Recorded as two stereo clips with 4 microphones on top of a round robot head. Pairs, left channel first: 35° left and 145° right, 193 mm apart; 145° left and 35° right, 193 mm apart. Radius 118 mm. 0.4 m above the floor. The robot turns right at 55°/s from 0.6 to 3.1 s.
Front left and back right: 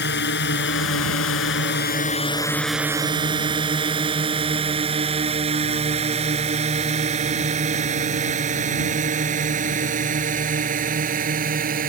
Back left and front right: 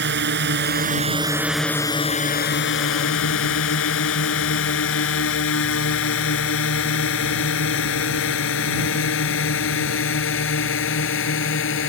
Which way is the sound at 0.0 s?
Straight ahead.